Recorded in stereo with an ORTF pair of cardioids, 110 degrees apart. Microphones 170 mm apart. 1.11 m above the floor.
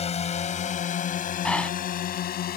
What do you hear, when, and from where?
0.0 s a drone: 40° left; by 2.6 s 65° left
1.4 s breathing: 5° left